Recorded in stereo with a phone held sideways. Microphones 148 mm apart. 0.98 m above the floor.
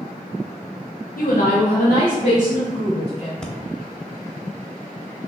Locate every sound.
1.2 s a woman speaking: 75° left (ahead or behind), 0.7 m; by 3.3 s 50° left (ahead or behind), 2 m
3.4 s breathing: 5° left (ahead or behind), 0.8 m